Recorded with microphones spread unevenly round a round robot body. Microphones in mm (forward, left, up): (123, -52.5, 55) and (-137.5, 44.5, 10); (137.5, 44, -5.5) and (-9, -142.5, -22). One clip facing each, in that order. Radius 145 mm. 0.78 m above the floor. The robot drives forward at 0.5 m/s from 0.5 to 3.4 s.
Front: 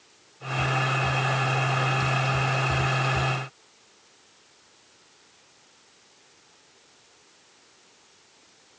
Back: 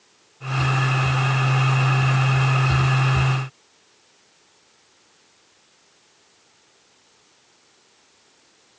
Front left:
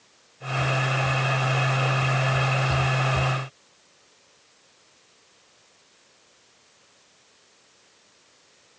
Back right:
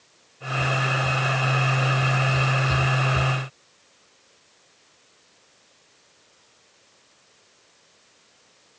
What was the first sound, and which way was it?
Only background noise.